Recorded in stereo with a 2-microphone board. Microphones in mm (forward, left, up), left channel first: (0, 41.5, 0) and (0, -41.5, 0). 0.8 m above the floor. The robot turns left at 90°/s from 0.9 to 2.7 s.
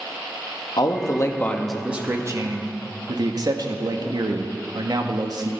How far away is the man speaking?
About 1.0 m.